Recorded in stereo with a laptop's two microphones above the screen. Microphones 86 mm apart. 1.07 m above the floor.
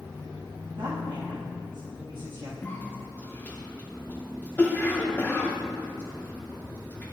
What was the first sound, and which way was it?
A woman speaking, 65° right (ahead or behind).